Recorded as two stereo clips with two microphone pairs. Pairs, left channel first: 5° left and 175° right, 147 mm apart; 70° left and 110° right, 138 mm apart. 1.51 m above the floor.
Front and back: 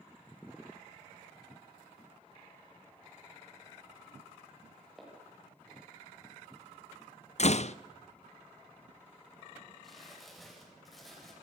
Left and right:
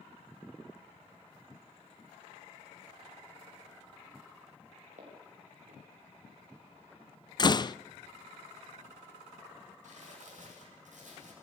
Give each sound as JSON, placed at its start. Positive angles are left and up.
{"t": 5.0, "sound": "footsteps", "azimuth_deg": -85, "distance_m": 9.5}
{"t": 7.4, "sound": "a door slam", "azimuth_deg": 20, "distance_m": 0.5}
{"t": 9.8, "sound": "crumpling", "azimuth_deg": -85, "distance_m": 9.0}